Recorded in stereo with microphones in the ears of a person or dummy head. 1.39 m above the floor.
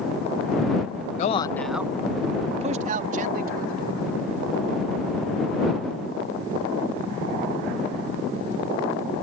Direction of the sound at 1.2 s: 40° left (ahead or behind).